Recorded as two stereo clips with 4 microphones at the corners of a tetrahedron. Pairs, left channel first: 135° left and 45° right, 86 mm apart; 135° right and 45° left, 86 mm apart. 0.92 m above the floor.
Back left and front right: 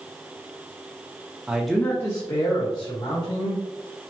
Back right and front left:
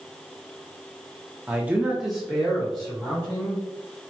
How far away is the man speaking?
About 0.8 m.